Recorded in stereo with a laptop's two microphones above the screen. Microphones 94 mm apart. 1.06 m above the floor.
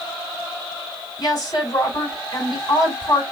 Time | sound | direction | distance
1.2 | a woman speaking | 45° left (ahead or behind) | 4 m